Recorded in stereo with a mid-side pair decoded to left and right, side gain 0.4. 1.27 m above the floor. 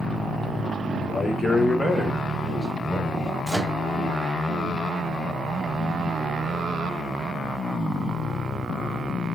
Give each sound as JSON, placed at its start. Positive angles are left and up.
{"t": 1.1, "sound": "a man speaking", "azimuth_deg": 30, "distance_m": 1.0}
{"t": 3.5, "sound": "a microwave", "azimuth_deg": -10, "distance_m": 1.5}